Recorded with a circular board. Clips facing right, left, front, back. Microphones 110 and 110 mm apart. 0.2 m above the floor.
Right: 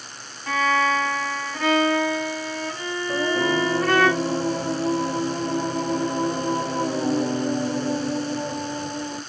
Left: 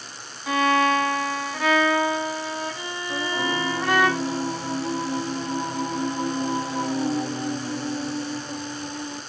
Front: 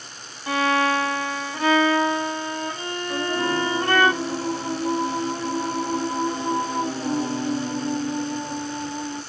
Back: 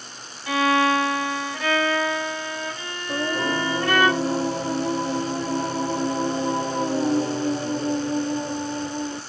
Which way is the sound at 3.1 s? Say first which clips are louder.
Right 4 dB, even; 130° right.